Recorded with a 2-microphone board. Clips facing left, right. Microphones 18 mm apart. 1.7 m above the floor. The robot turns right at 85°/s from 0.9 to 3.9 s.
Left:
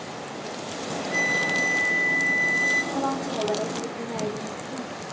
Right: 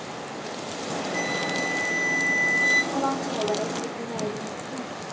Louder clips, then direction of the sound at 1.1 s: Left 5 dB; 125° left.